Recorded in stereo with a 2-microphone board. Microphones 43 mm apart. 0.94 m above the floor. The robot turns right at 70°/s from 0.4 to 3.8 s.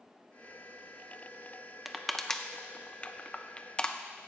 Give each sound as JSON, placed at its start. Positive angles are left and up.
{"t": 1.9, "sound": "crushing", "side_deg": -5, "distance_m": 0.6}